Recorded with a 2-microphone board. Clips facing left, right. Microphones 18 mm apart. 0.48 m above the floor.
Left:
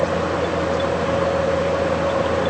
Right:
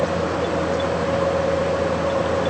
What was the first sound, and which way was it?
Only background noise.